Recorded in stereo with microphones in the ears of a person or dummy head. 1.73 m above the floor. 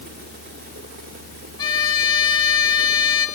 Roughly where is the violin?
Centre.